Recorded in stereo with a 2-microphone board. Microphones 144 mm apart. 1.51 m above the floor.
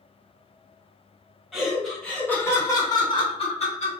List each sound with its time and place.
1.5 s laughter: 5° right (ahead or behind), 1.3 m; by 4.0 s 55° left (ahead or behind), 1.1 m